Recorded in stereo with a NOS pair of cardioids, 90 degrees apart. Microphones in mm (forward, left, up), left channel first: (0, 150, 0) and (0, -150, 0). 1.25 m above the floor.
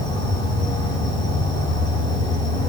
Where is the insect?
15° left, 5.5 m.